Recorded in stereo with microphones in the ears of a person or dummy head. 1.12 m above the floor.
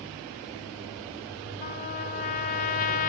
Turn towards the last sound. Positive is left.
turn(degrees=40)  # may be behind; listen again after turning